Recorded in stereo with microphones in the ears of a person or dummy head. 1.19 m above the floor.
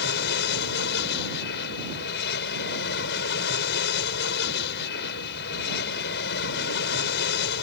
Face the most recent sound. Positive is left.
turn(degrees=60)  # may be behind; listen again after turning